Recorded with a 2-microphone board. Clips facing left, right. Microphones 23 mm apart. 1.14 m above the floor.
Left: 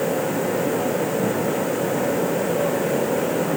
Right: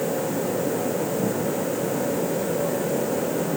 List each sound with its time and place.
Only background noise.